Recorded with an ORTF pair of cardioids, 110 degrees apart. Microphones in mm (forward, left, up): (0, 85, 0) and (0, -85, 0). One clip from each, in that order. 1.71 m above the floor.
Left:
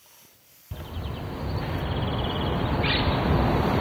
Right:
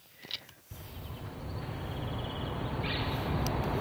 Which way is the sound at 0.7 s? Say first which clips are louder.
Left 10 dB; 50° left.